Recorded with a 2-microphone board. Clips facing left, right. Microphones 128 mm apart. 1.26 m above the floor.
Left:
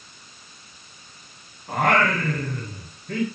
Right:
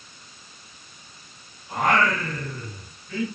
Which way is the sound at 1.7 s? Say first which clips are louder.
Left 1 dB; 60° left (ahead or behind).